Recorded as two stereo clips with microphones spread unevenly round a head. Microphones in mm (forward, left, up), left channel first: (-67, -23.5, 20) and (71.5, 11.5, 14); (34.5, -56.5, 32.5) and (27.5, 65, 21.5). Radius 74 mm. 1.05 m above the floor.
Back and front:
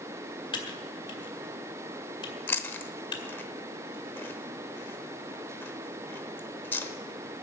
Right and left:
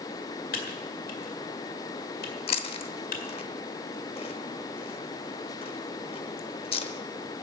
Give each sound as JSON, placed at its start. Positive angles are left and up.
{"t": 0.5, "sound": "typing on a keyboard", "azimuth_deg": -110, "distance_m": 2.0}
{"t": 2.5, "sound": "chewing", "azimuth_deg": -100, "distance_m": 0.9}